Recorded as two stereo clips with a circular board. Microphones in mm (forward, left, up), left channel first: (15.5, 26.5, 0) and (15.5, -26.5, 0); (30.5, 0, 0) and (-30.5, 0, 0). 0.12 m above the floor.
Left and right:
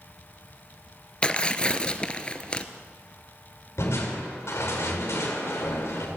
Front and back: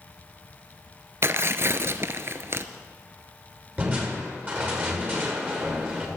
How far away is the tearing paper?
About 0.6 m.